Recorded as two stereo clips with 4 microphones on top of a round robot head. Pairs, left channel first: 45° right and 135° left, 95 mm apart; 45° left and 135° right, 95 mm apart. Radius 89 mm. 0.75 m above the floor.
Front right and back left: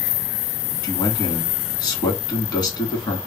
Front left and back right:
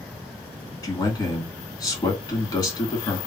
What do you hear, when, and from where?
0.8 s a man speaking: 10° right, 1.8 m